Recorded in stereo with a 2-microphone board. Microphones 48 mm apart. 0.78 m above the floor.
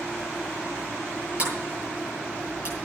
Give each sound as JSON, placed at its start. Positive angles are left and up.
{"t": 1.4, "sound": "a sliding door", "side_deg": -30, "distance_m": 9.0}